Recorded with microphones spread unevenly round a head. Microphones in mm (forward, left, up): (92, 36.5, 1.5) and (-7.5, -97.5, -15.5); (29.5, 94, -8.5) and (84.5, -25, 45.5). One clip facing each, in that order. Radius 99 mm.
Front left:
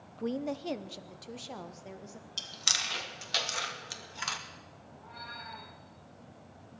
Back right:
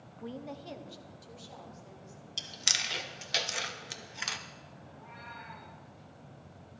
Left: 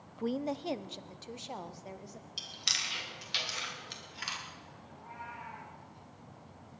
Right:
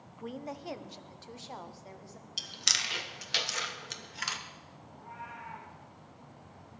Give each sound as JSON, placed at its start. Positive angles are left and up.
{"t": 0.2, "sound": "a woman speaking", "azimuth_deg": 55, "distance_m": 0.5}
{"t": 2.4, "sound": "chewing", "azimuth_deg": -55, "distance_m": 1.5}
{"t": 4.9, "sound": "a cat meowing", "azimuth_deg": -165, "distance_m": 5.5}